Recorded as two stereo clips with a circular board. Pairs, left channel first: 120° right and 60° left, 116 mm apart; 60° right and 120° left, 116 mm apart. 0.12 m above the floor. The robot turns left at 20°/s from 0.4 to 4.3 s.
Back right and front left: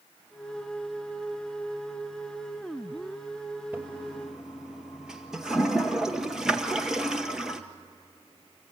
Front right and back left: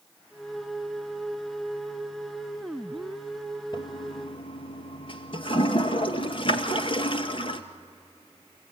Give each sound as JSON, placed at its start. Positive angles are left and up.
{"t": 3.7, "sound": "a toilet flushing", "azimuth_deg": -15, "distance_m": 1.1}